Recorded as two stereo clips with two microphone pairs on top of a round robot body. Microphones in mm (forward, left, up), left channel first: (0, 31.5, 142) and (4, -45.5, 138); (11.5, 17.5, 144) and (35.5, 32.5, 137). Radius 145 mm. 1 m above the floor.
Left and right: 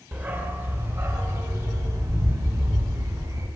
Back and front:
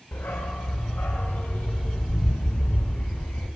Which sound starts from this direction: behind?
A dog barking, at 0.1 s.